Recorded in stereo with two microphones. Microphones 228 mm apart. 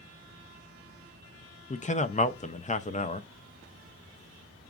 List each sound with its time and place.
1.7 s a man speaking: 30° left (ahead or behind), 0.5 m